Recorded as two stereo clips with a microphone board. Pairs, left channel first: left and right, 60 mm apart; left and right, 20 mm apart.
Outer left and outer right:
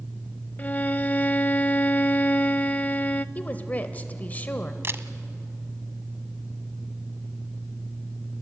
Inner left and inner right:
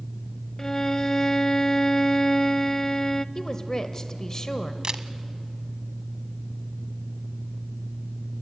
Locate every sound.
0.6 s a violin: 25° left (ahead or behind), 0.5 m
3.4 s a woman speaking: 25° left (ahead or behind), 1.1 m
4.8 s a camera shutter: 45° right (ahead or behind), 0.8 m